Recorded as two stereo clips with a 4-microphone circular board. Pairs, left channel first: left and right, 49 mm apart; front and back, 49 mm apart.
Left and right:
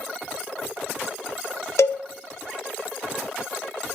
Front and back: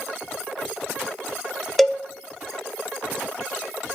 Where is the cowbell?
85° left, 0.8 m.